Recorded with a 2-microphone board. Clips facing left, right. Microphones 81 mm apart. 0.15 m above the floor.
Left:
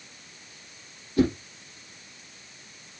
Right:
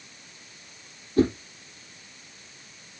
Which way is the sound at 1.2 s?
35° right (ahead or behind).